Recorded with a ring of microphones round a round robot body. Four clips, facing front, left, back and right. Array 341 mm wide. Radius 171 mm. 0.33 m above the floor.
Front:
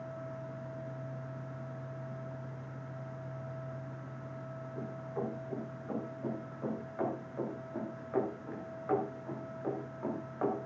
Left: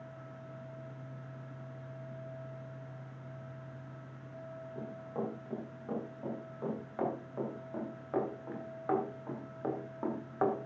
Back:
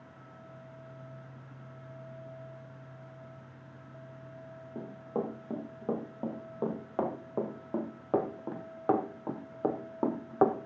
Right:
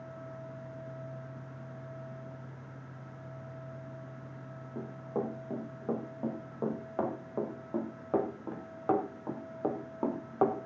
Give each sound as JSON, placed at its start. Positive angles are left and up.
{"t": 4.8, "sound": "running footsteps", "azimuth_deg": -145, "distance_m": 9.0}